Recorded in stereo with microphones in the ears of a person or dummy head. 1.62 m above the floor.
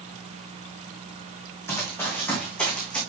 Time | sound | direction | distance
1.7 | running footsteps | 10° left (ahead or behind) | 3.5 m